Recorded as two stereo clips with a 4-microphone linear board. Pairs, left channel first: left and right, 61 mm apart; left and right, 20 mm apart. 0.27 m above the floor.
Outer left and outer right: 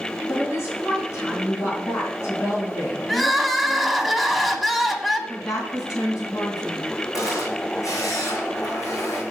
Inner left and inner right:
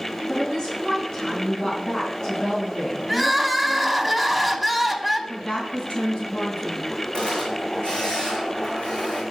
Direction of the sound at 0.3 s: 50° left (ahead or behind).